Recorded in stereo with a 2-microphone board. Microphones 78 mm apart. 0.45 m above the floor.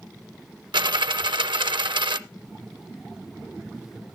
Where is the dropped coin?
80° right, 0.5 m.